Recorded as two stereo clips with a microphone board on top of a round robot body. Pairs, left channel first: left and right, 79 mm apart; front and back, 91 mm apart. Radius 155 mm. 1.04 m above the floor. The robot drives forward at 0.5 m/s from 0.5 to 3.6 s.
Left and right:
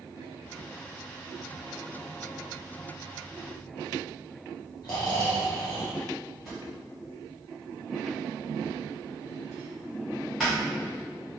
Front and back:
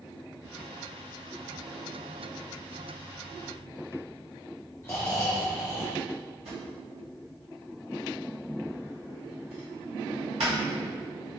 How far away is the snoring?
About 0.5 m.